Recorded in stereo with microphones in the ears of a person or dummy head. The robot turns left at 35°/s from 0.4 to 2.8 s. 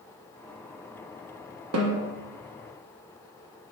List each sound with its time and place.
1.7 s a snare drum: 85° right, 1.4 m; by 2.1 s 75° right (ahead or behind), 1.4 m